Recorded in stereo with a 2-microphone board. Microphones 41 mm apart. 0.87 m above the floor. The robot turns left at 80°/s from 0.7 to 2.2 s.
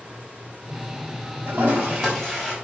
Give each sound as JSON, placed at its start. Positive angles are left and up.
{"t": 1.5, "sound": "a toilet flushing", "azimuth_deg": -115, "distance_m": 5.5}